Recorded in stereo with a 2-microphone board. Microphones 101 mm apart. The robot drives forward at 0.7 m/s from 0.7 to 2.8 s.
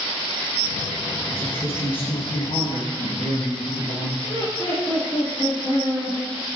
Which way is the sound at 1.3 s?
60° left (ahead or behind).